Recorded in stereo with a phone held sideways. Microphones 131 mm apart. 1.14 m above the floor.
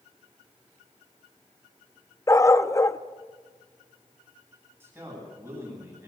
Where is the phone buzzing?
No phone buzzing in this recording.